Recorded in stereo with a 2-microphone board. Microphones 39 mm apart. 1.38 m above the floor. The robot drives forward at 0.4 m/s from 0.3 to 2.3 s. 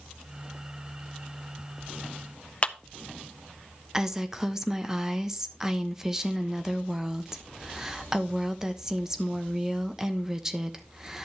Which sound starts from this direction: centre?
A woman speaking, at 3.9 s.